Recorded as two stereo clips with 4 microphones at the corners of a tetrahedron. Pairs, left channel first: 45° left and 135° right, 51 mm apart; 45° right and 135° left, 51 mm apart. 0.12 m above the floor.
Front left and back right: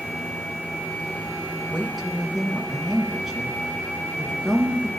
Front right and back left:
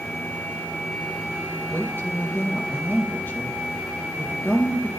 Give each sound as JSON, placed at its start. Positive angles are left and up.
{"t": 1.7, "sound": "a woman speaking", "azimuth_deg": -45, "distance_m": 2.0}